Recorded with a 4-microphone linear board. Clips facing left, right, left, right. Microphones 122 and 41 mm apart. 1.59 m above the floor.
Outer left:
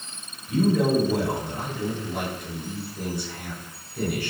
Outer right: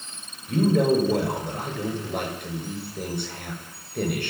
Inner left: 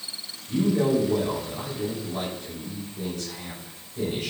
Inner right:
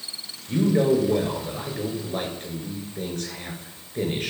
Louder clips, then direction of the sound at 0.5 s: Outer right 1 dB, inner right 2 dB; 60° right (ahead or behind).